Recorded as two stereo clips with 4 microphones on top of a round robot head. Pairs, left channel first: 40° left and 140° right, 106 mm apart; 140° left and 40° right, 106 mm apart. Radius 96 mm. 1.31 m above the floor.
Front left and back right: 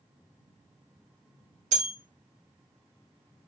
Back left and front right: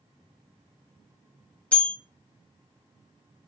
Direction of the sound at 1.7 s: 145° right.